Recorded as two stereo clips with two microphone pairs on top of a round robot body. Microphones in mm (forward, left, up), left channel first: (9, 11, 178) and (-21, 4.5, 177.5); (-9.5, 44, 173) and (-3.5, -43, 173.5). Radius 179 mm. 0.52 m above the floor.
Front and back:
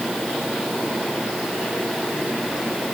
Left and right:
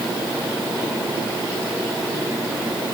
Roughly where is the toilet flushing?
I don't hear a toilet flushing.